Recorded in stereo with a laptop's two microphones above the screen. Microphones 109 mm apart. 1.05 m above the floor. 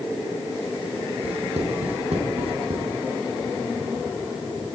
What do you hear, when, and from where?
1.2 s writing: 70° right (ahead or behind), 8 m